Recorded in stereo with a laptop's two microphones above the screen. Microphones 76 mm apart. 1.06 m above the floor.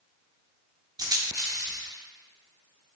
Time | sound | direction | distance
1.0 | a rattle | 50° right (ahead or behind) | 0.8 m